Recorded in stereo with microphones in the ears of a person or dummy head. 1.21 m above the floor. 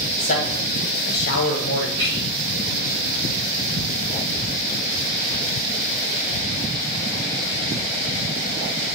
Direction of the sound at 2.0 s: 30° right (ahead or behind).